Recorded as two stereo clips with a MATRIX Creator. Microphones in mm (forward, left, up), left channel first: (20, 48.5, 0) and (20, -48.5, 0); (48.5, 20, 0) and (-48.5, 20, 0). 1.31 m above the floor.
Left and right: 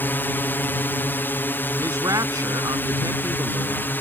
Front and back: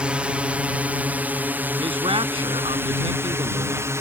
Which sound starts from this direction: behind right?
A man speaking, at 1.8 s.